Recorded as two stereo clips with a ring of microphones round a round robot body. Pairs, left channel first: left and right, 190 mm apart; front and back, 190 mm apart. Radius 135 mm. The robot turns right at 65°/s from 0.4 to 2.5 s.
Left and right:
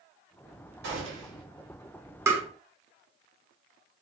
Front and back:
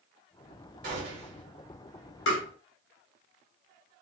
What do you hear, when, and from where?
0.8 s a gunshot: 125° right, 1.8 m; by 1.5 s 85° right, 1.8 m
2.3 s tapping: 15° right, 1.2 m; by 2.4 s 5° right, 1.2 m